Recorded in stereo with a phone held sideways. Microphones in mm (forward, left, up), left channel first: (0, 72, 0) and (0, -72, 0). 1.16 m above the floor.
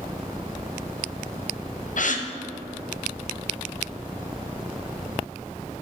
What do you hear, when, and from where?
2.0 s a gasp: 60° left (ahead or behind), 0.6 m